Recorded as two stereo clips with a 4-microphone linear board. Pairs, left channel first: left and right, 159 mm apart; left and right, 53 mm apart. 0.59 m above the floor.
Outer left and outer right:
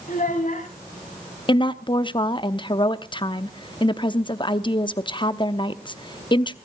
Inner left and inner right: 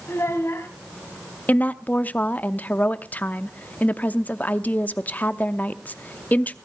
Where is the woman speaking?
30° left (ahead or behind), 0.7 m.